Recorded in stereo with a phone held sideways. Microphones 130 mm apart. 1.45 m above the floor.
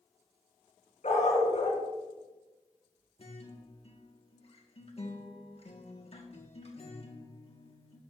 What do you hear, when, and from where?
1.0 s a dog barking: 65° left (ahead or behind), 3.5 m
3.2 s a guitar: 50° left (ahead or behind), 1.6 m